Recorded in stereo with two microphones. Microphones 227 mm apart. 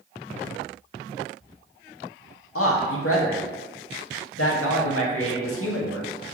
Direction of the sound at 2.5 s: 80° left.